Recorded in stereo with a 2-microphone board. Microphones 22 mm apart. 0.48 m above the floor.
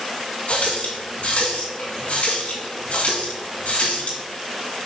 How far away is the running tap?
About 3 m.